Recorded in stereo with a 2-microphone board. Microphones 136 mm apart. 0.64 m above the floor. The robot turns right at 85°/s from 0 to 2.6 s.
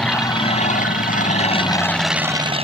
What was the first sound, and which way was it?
An aircraft, 5° left.